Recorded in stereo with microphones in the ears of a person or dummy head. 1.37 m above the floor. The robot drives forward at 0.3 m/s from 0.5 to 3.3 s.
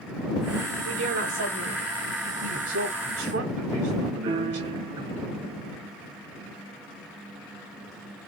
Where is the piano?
30° right (ahead or behind), 1.5 m.